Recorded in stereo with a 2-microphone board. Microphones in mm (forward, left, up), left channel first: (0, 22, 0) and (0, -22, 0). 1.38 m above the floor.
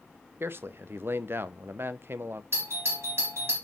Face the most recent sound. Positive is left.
turn(degrees=-80)